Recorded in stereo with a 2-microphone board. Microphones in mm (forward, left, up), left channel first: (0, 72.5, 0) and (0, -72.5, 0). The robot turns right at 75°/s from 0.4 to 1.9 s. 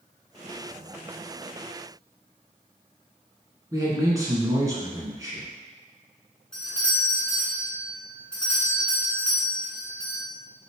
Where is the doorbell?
5° left (ahead or behind), 1.5 m.